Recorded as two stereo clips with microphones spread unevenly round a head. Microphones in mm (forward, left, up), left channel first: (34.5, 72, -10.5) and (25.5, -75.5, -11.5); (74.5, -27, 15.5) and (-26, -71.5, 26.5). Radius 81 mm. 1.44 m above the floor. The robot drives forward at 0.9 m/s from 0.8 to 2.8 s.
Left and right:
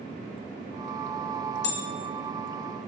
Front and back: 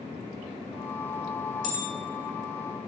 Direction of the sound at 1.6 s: 85° left.